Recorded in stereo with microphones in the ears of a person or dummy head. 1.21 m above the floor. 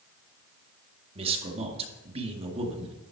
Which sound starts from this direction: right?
A man speaking, at 1.1 s.